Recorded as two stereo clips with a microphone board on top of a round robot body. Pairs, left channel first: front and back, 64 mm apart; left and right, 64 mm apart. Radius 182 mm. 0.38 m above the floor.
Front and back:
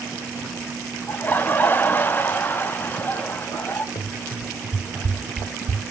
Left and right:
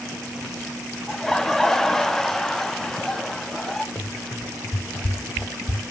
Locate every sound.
1.1 s laughter: 15° left, 0.9 m
4.0 s running footsteps: 25° left, 1.2 m; by 5.8 s 155° left, 1.2 m